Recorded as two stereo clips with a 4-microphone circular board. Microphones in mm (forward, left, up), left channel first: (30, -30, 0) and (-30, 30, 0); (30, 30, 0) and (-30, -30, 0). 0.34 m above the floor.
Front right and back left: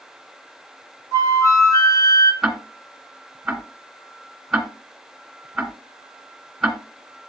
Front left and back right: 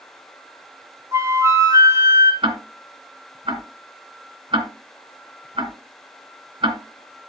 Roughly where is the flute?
Right.